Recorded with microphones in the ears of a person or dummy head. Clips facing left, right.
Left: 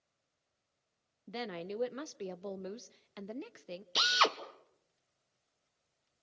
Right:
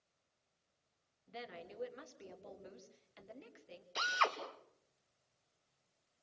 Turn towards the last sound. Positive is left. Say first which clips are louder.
# left 4 dB
turn(degrees=50)  # may be behind; listen again after turning